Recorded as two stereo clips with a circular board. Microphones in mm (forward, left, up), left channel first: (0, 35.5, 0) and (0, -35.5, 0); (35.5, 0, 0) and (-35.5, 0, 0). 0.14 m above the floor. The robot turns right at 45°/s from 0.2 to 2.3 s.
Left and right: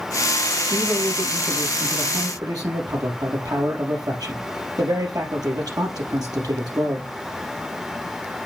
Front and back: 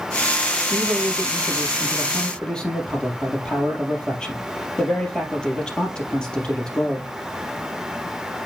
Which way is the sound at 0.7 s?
150° right.